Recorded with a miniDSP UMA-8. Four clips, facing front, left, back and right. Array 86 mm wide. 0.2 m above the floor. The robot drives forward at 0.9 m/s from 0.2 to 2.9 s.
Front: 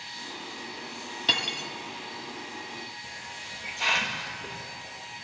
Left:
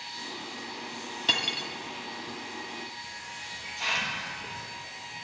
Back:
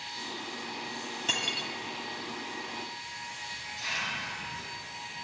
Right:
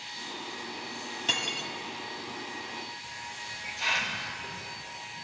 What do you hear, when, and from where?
1.3 s cutlery clinking: 25° left, 0.6 m; by 1.7 s 155° left, 0.6 m
3.0 s a hiss: straight ahead, 1.1 m